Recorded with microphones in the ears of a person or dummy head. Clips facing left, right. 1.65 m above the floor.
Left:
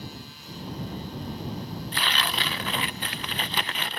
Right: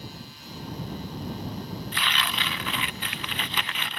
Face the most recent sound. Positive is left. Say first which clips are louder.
# left 3 dB
turn(degrees=30)  # may be behind; listen again after turning